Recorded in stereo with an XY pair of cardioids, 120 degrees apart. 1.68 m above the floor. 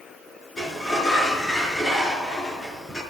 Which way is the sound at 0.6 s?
20° left.